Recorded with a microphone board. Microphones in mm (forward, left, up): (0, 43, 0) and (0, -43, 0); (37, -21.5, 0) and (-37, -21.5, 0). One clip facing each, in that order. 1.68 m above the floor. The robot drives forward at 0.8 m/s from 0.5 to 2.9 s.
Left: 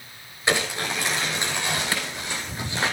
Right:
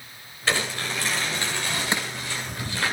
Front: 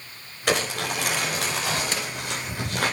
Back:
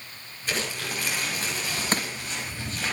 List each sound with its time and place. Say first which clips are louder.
0.5 s crumpling: left 2 dB, front 6 dB; 20° left, 10 m
1.9 s crushing: right 1 dB, back 2 dB; 150° right, 0.7 m; by 2.1 s 155° right, 0.9 m